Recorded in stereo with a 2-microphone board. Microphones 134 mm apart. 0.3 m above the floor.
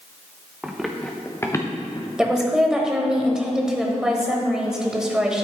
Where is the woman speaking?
5° right (ahead or behind), 1.3 m.